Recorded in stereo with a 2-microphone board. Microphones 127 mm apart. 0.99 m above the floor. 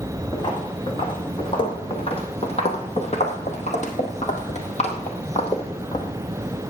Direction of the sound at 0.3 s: 35° left (ahead or behind).